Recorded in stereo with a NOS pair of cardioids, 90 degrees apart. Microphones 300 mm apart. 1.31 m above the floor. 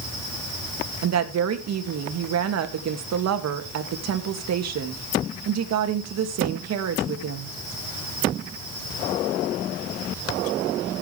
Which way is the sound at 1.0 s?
60° right.